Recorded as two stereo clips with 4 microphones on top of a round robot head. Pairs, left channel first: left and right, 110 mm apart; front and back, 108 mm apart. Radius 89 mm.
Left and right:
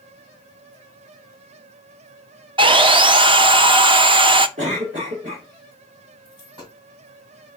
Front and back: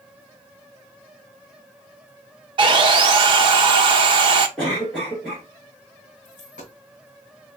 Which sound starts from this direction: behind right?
Sawing, at 2.6 s.